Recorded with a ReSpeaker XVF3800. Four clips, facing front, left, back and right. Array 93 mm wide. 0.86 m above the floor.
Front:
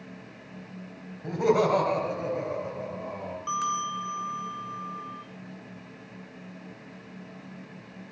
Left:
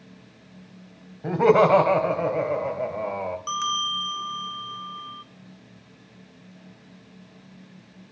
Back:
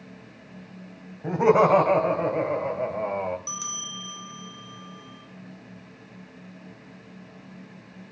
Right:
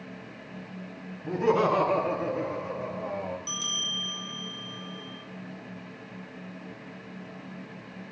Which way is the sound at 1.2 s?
115° left.